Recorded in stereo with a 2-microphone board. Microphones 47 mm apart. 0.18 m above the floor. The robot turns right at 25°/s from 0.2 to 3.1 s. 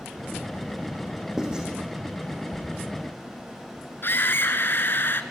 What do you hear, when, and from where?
1.4 s writing: 10° right (ahead or behind), 6 m; by 1.7 s 20° right (ahead or behind), 6 m
4.0 s a scream: 50° left (ahead or behind), 2.5 m